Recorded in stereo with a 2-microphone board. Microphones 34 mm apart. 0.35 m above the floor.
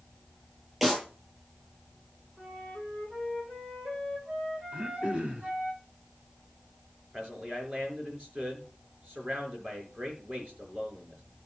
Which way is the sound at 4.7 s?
35° right (ahead or behind).